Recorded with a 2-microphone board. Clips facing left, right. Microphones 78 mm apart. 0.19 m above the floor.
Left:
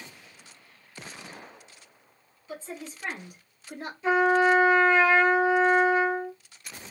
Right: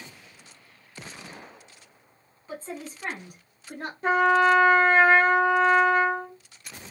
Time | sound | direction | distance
2.5 | a woman speaking | 40° right (ahead or behind) | 1.3 m
4.0 | a trumpet | 55° right (ahead or behind) | 0.7 m